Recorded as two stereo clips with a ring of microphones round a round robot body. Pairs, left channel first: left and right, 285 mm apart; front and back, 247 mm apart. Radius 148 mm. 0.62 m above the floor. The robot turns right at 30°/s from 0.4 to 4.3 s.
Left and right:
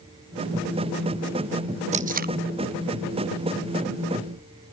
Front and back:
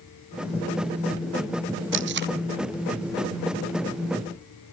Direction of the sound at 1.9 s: 150° right.